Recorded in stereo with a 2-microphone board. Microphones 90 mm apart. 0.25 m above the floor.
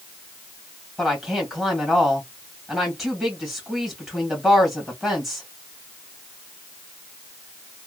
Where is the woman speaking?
5° right (ahead or behind), 1.7 m.